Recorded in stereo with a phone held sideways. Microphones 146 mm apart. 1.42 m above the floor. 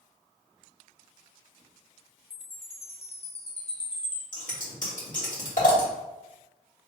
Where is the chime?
45° left (ahead or behind), 0.7 m.